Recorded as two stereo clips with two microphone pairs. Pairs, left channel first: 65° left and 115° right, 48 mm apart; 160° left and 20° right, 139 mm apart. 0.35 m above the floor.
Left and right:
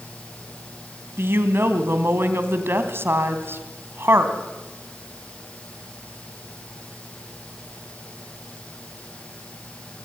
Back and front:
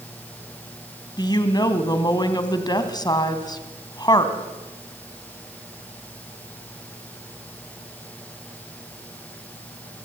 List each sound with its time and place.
1.2 s a woman speaking: 145° right, 2.5 m